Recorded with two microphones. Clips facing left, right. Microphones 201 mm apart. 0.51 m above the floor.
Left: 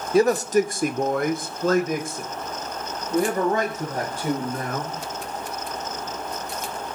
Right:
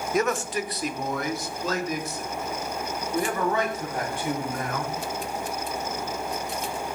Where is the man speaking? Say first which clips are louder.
Left 8 dB; 30° left (ahead or behind), 1.1 m; by 4.9 s 40° left (ahead or behind), 4 m.